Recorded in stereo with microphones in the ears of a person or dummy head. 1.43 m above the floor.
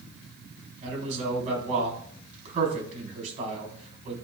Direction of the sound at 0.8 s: 35° right (ahead or behind).